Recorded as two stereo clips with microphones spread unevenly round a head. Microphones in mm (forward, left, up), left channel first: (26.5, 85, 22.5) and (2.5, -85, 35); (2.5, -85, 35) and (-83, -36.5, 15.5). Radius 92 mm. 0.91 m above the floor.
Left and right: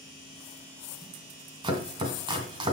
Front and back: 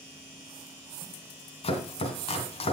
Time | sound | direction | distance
1.6 | chopping | 35° right | 2.5 m